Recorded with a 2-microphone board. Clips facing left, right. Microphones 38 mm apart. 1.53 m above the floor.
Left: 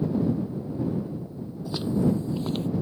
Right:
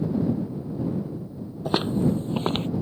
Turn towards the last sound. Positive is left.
turn(degrees=-55)  # may be behind; listen again after turning